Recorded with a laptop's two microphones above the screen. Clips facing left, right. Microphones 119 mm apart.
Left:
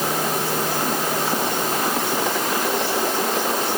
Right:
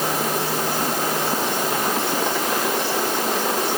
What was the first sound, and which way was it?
Only background noise.